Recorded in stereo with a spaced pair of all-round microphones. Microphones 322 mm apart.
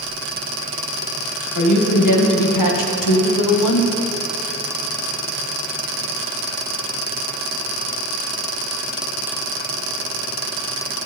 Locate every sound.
1.6 s a woman speaking: 60° left (ahead or behind), 2 m; by 3.9 s 70° left (ahead or behind), 1.3 m